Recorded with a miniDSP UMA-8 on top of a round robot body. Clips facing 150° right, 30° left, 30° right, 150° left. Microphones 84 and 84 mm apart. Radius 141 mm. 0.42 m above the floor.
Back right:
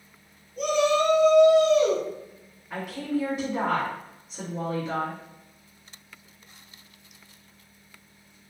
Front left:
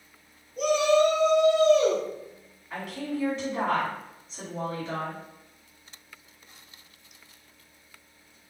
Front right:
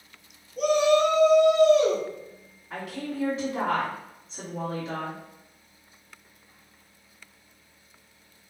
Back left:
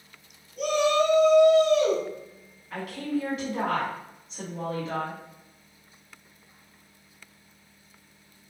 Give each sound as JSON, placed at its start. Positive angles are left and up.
{"t": 0.6, "sound": "a shout", "azimuth_deg": -50, "distance_m": 1.6}
{"t": 2.7, "sound": "a woman speaking", "azimuth_deg": -65, "distance_m": 1.6}